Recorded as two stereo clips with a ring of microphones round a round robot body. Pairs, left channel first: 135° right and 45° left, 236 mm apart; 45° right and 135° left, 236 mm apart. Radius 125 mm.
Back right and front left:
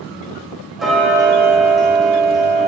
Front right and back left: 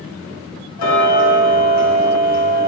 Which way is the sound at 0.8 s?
45° right.